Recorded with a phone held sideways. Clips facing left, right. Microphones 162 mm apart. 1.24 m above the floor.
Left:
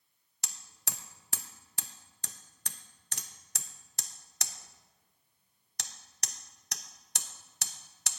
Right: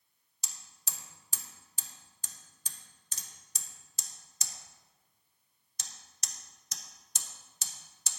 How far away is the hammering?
About 0.6 m.